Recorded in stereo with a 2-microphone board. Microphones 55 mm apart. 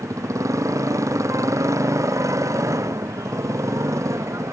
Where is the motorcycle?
70° right (ahead or behind); by 4.5 s 65° right (ahead or behind).